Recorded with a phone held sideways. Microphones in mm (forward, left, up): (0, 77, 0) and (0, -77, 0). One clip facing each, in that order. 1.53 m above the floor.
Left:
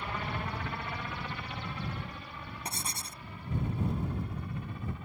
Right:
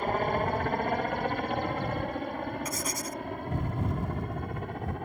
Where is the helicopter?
50° right (ahead or behind); by 5.0 s 60° right (ahead or behind).